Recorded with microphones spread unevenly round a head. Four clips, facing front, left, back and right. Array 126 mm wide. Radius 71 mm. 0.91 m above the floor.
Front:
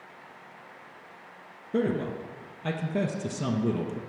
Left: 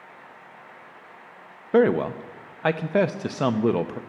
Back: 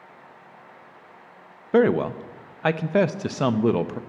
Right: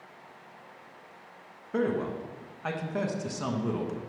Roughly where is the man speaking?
Behind left.